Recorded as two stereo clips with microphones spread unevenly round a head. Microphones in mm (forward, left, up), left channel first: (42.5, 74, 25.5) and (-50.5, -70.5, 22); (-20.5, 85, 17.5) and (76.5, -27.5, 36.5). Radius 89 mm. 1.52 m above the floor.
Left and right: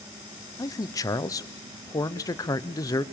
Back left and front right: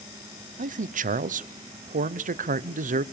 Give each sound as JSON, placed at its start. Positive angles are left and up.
{"t": 0.6, "sound": "a man speaking", "azimuth_deg": -15, "distance_m": 0.8}